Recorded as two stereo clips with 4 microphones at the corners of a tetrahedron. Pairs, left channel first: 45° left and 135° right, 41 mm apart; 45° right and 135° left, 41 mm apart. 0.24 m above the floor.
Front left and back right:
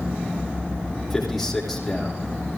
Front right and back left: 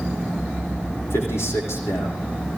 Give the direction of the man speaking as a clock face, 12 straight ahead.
2 o'clock.